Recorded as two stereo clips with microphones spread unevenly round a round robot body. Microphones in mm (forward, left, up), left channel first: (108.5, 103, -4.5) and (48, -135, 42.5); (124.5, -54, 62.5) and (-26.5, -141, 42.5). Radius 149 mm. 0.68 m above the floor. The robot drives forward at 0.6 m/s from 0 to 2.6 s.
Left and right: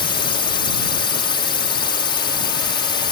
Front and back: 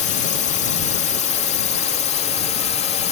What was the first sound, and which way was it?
A drone, 40° left.